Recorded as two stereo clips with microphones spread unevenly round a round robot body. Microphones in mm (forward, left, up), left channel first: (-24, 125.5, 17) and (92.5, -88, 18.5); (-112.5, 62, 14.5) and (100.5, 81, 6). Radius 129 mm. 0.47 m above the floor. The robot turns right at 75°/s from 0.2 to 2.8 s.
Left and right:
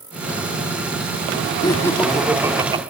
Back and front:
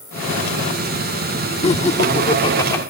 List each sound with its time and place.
1.6 s laughter: 170° left, 1.4 m; by 2.8 s 105° right, 1.4 m